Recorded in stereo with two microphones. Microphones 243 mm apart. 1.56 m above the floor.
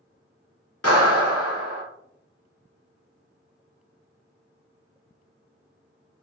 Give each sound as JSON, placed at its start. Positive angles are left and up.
{"t": 0.8, "sound": "a clap", "side_deg": 75, "distance_m": 2.0}